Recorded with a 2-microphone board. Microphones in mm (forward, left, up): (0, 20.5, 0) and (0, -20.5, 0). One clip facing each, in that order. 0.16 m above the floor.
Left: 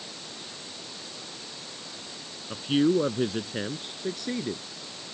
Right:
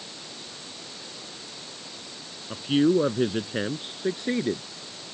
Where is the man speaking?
5° right (ahead or behind); by 4.6 s 35° right (ahead or behind).